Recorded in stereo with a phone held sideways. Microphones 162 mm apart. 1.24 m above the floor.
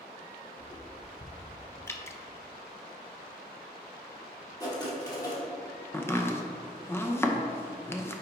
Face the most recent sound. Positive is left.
turn(degrees=15)  # may be behind; listen again after turning